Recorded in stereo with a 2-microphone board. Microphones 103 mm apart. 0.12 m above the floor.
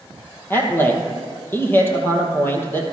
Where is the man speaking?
20° left (ahead or behind), 3 m.